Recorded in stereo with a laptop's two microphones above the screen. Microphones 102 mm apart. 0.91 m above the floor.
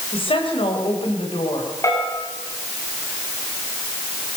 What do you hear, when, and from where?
0.1 s a woman speaking: 65° left (ahead or behind), 5.5 m
1.8 s a bell: 30° left (ahead or behind), 8.5 m